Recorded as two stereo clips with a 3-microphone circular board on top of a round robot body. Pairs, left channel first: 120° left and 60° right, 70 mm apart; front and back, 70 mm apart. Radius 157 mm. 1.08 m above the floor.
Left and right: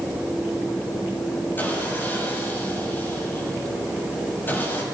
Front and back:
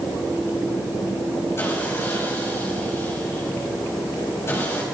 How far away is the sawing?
About 7 m.